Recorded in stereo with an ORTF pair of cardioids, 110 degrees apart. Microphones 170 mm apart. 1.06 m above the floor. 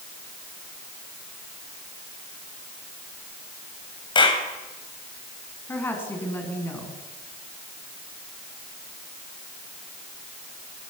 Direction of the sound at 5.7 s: 10° left.